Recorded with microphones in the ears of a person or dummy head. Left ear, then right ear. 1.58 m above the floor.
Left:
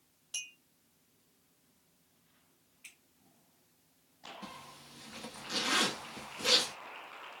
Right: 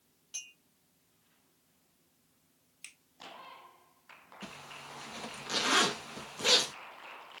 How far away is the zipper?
About 0.5 m.